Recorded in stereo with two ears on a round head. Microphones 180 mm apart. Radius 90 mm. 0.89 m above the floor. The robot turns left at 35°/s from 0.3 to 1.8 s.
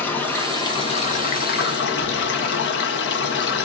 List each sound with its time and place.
0.0 s running water: 170° left, 1.2 m; by 3.6 s 120° left, 1.2 m